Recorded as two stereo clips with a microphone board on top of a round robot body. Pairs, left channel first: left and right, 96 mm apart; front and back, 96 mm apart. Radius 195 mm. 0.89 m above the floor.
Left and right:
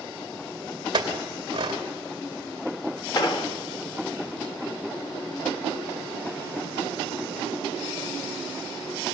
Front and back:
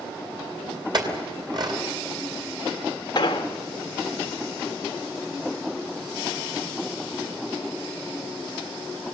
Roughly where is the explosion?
Ahead left.